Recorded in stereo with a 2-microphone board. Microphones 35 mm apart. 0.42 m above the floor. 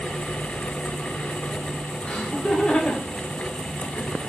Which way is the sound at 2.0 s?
25° left (ahead or behind).